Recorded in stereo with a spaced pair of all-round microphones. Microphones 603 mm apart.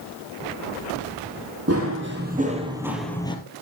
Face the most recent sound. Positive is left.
turn(degrees=10)  # may be behind; listen again after turning